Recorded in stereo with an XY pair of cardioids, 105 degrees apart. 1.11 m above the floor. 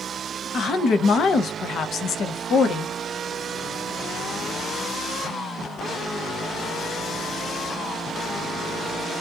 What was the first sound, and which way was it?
A woman speaking, 60° left.